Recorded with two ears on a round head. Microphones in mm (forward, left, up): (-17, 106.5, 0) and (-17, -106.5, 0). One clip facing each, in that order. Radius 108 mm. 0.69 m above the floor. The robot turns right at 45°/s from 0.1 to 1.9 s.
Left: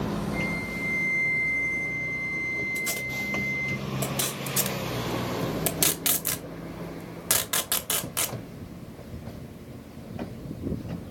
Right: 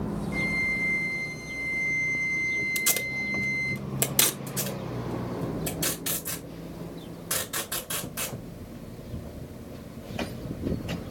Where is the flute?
100° right, 1.1 m; by 3.8 s 30° right, 1.1 m.